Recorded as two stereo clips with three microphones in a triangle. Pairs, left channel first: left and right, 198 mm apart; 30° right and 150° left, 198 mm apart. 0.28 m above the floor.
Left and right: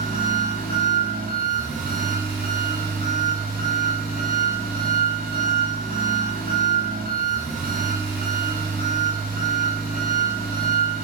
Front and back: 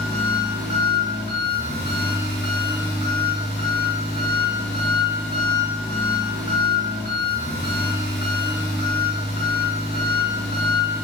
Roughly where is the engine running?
Ahead right.